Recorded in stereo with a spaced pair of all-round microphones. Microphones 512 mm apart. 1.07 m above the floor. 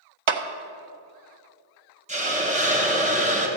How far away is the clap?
About 0.6 m.